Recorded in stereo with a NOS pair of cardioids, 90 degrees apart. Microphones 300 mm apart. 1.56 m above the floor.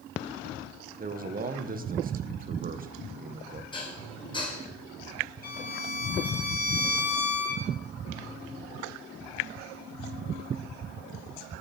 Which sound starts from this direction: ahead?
Dishes clattering, at 3.7 s.